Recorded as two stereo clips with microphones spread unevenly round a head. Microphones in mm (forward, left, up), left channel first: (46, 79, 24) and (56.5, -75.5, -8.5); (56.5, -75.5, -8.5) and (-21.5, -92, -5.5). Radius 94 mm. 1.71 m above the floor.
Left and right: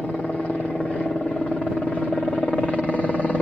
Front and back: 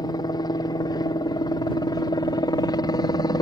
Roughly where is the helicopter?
Ahead.